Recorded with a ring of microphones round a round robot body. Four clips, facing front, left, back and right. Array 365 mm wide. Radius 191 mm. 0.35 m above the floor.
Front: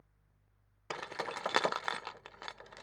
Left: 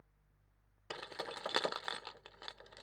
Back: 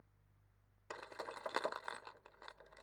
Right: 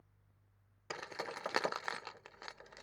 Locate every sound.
0.9 s keys jangling: 10° right